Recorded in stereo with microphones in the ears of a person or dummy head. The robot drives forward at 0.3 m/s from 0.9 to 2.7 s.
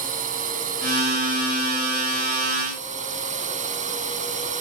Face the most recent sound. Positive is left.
turn(degrees=-40)  # may be behind; listen again after turning